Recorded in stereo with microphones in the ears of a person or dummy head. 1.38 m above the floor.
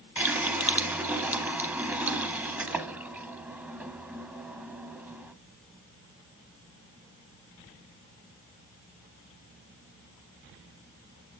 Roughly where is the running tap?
Centre.